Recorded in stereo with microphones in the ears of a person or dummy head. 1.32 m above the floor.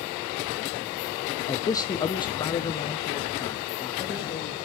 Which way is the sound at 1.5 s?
15° left (ahead or behind).